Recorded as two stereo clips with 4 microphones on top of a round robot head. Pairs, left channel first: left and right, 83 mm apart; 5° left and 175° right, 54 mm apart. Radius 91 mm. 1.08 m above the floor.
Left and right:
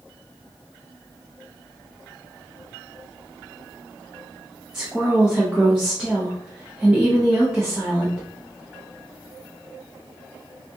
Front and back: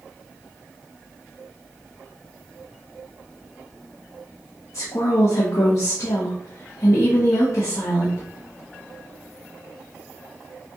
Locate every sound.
4.7 s a woman speaking: 10° right, 1.0 m